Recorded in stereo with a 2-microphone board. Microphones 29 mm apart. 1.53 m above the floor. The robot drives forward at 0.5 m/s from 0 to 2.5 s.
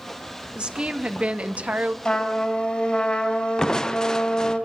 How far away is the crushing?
About 0.7 m.